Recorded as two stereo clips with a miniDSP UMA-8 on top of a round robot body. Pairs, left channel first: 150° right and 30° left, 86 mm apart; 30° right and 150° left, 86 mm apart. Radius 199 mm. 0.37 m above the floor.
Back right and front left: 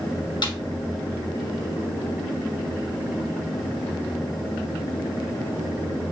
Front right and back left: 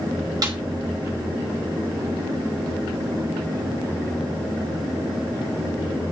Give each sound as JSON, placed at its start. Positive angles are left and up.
{"t": 0.4, "sound": "a snare drum", "azimuth_deg": -170, "distance_m": 3.0}